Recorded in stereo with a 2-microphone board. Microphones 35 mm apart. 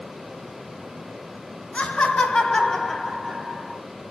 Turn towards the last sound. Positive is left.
turn(degrees=-15)  # may be behind; listen again after turning